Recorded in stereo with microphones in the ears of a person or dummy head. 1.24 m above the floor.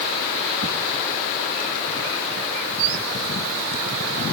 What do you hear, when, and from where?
Only background noise.